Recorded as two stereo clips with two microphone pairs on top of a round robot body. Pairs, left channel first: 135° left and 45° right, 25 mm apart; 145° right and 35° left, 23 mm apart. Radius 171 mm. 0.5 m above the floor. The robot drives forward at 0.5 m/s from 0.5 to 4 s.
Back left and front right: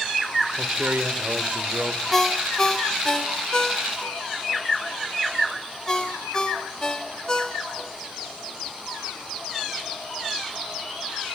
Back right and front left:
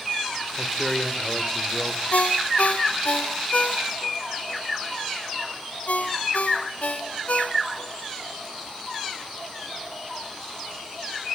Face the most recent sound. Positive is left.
turn(degrees=-160)